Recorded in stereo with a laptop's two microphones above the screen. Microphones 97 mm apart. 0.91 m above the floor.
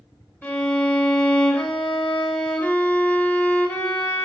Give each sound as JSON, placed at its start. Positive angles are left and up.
{"t": 0.4, "sound": "a violin", "side_deg": 15, "distance_m": 0.7}